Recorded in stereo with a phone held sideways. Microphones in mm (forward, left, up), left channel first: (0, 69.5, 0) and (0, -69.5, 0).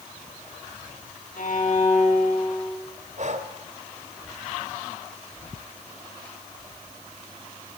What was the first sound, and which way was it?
A violin, 65° left (ahead or behind).